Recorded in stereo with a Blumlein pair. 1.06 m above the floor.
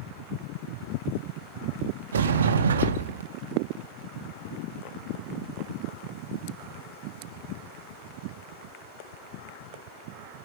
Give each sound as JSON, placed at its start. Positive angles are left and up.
{"t": 2.1, "sound": "a sliding door", "azimuth_deg": -65, "distance_m": 1.2}